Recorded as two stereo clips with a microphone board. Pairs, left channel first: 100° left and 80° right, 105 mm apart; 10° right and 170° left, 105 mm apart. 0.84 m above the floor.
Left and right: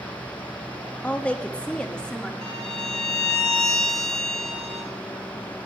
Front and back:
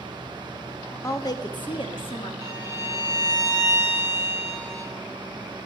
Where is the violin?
65° right, 2 m.